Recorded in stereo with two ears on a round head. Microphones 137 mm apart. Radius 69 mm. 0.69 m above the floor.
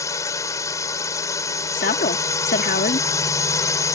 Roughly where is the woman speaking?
Left.